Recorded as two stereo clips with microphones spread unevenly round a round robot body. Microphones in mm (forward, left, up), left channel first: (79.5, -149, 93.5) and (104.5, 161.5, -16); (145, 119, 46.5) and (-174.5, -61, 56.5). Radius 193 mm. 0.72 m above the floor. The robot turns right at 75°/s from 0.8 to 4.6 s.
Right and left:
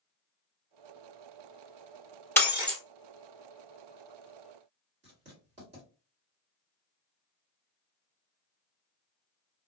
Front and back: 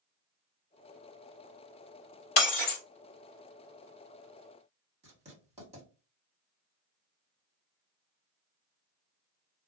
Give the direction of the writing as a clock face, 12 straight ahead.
7 o'clock.